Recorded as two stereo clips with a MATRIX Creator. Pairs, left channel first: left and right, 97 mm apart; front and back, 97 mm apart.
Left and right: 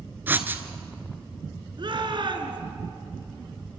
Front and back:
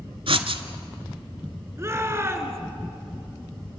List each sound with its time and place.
0.3 s writing: 160° right, 1.2 m
1.8 s a shout: 120° right, 3 m